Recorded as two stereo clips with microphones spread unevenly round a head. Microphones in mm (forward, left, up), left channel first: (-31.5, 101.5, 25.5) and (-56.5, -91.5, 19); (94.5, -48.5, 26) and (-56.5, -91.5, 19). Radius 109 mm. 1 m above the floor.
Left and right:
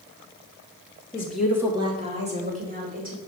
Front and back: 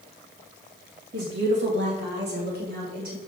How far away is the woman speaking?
About 1.2 m.